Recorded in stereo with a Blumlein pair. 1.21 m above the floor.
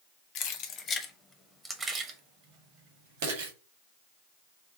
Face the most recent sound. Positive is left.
turn(degrees=-60)